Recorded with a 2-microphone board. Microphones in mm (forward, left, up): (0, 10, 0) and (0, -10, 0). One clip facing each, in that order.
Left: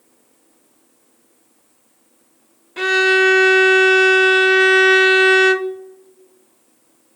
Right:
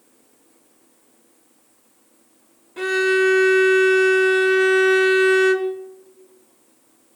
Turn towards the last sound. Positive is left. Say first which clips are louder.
# left 4 dB
turn(degrees=40)  # may be behind; listen again after turning